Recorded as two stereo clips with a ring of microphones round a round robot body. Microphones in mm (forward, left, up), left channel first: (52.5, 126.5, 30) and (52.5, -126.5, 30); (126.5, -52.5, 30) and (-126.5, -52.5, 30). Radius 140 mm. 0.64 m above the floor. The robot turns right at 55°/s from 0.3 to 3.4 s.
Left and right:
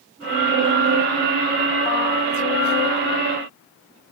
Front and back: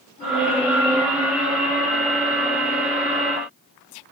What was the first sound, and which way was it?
Only background noise.